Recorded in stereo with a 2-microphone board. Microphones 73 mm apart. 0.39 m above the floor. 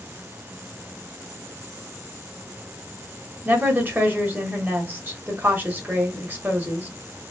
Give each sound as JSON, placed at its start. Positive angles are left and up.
{"t": 3.5, "sound": "a woman speaking", "side_deg": -25, "distance_m": 1.3}